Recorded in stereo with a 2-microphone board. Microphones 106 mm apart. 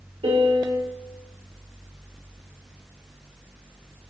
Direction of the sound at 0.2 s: 65° right (ahead or behind).